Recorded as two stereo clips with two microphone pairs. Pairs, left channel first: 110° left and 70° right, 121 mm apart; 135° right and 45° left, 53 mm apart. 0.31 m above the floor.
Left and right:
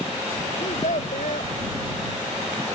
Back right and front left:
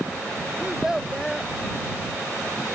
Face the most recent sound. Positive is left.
turn(degrees=125)